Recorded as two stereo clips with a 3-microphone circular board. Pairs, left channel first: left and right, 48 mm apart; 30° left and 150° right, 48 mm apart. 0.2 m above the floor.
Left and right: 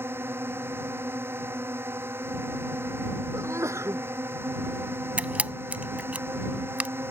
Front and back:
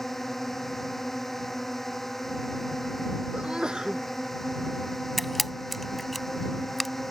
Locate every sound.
0.0 s a drone: 55° right
3.3 s a sneeze: 75° right
5.2 s a camera shutter: 55° right